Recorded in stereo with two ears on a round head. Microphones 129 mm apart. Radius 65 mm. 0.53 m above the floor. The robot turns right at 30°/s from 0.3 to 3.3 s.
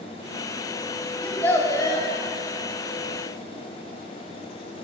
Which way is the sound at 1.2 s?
5° left (ahead or behind).